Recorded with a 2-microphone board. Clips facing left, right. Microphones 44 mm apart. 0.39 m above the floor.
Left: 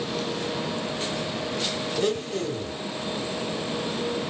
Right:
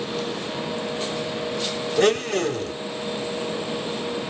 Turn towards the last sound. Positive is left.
turn(degrees=-70)  # may be behind; listen again after turning